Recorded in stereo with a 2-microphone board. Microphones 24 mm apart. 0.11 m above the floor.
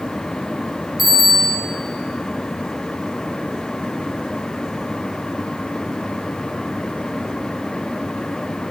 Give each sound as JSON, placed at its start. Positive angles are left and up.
{"t": 1.0, "sound": "a bicycle bell", "side_deg": -5, "distance_m": 3.0}